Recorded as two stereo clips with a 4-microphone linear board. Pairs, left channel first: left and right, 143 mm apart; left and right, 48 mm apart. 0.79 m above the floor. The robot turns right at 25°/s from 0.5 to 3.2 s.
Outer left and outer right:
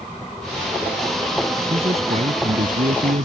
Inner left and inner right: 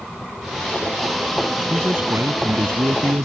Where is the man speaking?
140° right; by 3.3 s 100° right.